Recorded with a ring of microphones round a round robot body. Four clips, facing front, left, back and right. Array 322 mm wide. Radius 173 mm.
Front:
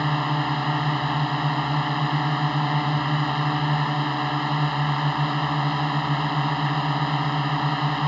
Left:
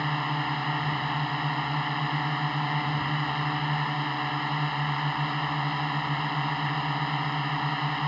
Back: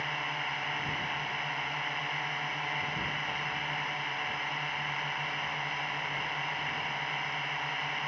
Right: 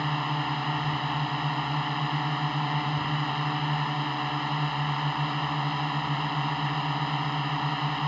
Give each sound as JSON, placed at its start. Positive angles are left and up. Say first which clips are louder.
{"t": 0.0, "sound": "a drone", "louder": "even, front 12 dB", "azimuth_deg": 0}